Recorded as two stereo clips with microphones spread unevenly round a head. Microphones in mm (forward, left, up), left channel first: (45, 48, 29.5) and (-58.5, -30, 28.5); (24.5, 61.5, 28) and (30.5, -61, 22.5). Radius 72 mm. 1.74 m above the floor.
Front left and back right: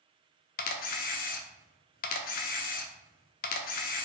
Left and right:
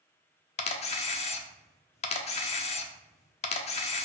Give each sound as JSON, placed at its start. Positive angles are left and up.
{"t": 0.6, "sound": "a camera shutter", "azimuth_deg": 55, "distance_m": 0.5}